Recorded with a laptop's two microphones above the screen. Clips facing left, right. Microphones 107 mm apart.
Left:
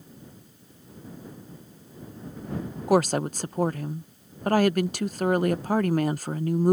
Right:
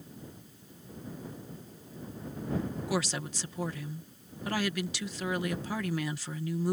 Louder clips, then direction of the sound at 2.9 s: Left 14 dB; 50° left (ahead or behind).